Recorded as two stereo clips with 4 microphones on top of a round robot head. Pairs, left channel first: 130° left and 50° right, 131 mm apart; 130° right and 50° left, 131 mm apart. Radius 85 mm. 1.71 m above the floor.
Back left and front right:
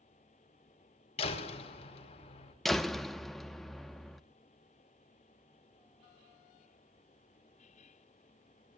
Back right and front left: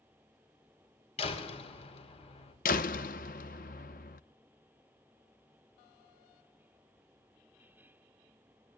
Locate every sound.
1.2 s a door slam: straight behind, 4.5 m
2.6 s a door slam: 140° right, 1.0 m